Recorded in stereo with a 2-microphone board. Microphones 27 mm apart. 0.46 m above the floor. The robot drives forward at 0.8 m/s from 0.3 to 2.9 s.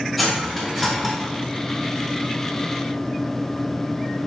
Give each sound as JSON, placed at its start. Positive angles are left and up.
{"t": 0.2, "sound": "cutlery clinking", "side_deg": 0, "distance_m": 1.2}